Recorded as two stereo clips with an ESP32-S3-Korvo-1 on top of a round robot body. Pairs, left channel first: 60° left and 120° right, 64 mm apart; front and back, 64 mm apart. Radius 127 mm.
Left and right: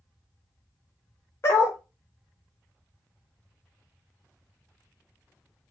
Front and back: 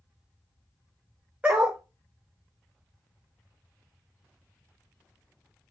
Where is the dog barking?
110° left, 0.6 m.